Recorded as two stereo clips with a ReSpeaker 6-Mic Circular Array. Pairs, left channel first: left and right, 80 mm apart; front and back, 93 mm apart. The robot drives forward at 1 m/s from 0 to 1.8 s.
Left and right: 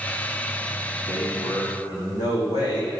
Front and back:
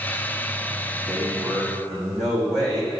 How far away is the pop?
I don't hear a pop.